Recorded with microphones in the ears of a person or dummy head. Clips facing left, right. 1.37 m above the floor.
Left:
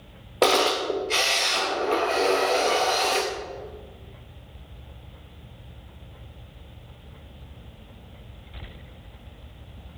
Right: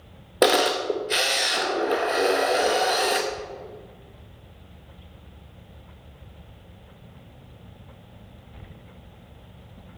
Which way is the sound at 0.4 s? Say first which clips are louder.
Right 1 dB; 10° right (ahead or behind).